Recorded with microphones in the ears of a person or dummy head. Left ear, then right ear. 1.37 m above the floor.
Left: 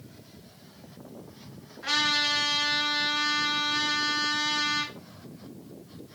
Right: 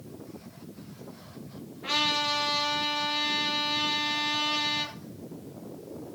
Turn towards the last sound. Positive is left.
turn(degrees=65)  # may be behind; listen again after turning